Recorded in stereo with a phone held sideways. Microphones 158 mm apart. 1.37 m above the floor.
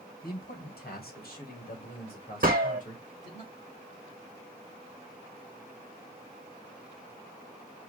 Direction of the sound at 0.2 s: 80° left.